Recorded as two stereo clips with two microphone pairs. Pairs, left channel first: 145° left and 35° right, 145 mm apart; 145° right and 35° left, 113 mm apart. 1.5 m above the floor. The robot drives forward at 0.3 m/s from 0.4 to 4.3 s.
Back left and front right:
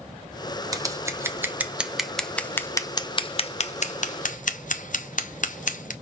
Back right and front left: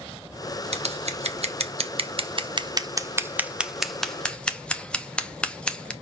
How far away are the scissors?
About 0.8 m.